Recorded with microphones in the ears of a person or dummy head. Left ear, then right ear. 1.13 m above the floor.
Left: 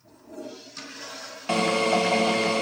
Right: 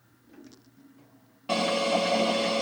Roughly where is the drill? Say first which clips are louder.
Left 3 dB; left.